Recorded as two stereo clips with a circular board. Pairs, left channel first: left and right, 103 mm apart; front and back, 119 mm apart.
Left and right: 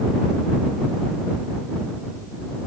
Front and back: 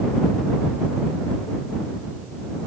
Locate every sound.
Only background noise.